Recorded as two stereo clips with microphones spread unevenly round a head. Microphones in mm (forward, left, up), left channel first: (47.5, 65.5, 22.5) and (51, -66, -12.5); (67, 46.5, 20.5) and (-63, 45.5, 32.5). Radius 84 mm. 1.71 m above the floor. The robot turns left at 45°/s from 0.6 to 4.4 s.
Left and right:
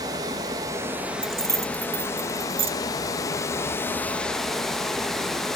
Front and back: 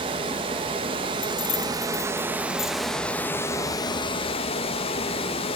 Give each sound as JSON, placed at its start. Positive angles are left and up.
{"t": 0.0, "sound": "running water", "azimuth_deg": -165, "distance_m": 1.1}
{"t": 1.2, "sound": "keys jangling", "azimuth_deg": 0, "distance_m": 0.7}